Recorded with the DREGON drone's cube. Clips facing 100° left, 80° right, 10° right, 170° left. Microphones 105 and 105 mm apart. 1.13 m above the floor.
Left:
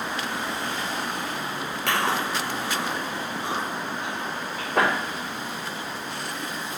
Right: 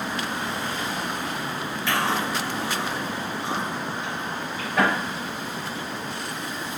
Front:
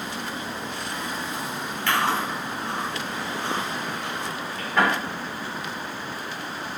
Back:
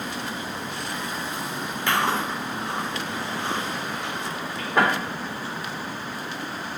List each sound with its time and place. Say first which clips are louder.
1.9 s chewing: even, even; 100° left, 4 m